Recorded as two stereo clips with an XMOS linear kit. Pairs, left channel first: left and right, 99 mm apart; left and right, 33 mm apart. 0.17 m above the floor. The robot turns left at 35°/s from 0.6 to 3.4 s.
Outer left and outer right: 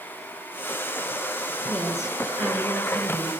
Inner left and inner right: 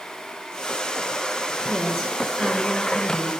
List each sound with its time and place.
1.7 s a woman speaking: 15° left, 2.5 m; by 3.3 s 45° right, 2.5 m